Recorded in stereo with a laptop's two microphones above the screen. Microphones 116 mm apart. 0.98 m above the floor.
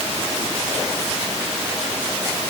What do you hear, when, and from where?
Only background noise.